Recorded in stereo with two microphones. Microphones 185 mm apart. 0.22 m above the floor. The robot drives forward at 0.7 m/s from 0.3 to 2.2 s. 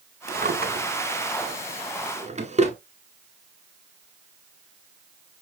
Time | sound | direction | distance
0.3 | a drawer | 55° right (ahead or behind) | 1.3 m